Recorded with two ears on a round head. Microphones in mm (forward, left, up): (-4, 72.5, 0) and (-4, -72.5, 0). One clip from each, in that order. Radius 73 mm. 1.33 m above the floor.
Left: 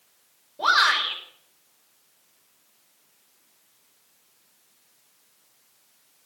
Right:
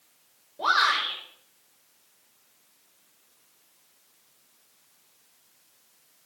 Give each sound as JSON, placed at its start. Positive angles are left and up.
{"t": 0.6, "sound": "a shout", "side_deg": 30, "distance_m": 5.5}